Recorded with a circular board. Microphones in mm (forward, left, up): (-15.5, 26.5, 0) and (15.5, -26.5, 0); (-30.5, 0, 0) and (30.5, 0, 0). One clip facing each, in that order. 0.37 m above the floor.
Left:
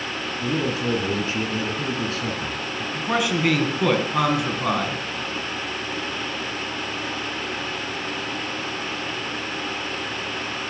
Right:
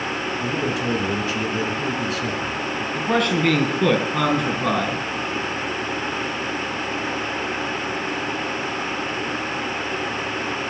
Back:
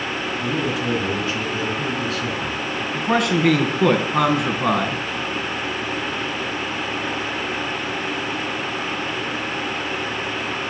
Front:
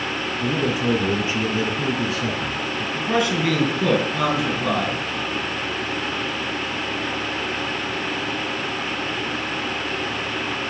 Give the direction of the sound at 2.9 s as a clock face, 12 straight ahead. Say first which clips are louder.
Right 2 dB, back 2 dB; 5 o'clock.